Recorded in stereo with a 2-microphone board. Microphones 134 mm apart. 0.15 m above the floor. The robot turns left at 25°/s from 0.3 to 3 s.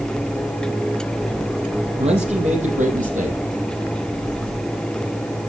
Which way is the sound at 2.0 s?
50° right (ahead or behind).